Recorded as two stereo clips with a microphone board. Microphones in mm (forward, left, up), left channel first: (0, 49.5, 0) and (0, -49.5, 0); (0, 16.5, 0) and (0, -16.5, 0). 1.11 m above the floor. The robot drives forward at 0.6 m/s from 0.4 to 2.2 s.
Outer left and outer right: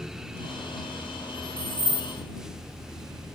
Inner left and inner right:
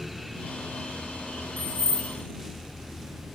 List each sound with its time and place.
1.6 s keys jangling: 80° right, 0.5 m; by 2.1 s 65° right (ahead or behind), 0.6 m